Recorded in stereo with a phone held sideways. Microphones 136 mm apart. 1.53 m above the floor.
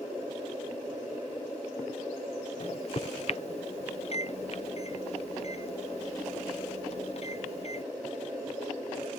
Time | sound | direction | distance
2.6 | a microwave | 50° left (ahead or behind) | ?